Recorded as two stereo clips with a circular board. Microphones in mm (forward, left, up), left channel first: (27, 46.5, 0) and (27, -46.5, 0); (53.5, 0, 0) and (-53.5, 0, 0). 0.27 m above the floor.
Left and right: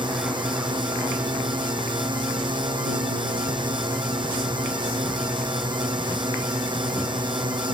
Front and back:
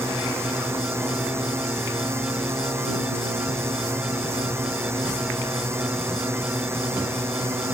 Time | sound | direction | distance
0.0 | a drone | 115° right | ?